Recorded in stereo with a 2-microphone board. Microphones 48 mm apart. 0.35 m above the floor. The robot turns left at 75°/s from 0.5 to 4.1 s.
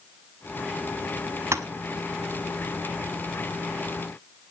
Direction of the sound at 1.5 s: 75° right (ahead or behind).